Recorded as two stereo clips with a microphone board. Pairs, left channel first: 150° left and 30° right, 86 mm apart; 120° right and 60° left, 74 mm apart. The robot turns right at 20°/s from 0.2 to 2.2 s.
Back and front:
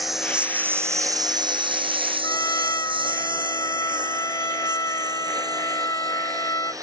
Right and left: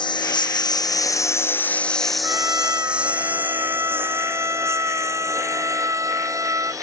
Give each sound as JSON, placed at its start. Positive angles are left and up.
{"t": 0.0, "sound": "a lawn mower", "azimuth_deg": -120}
{"t": 2.2, "sound": "a trumpet", "azimuth_deg": 105}